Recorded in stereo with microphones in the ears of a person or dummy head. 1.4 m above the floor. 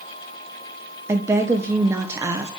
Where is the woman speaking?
15° right (ahead or behind), 0.9 m.